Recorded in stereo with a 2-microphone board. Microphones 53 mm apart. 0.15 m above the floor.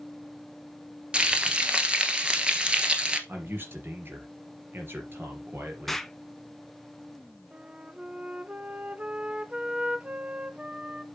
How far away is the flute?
About 0.6 m.